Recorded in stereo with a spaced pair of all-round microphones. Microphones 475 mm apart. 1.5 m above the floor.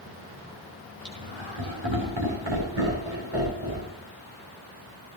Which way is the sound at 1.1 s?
65° right (ahead or behind).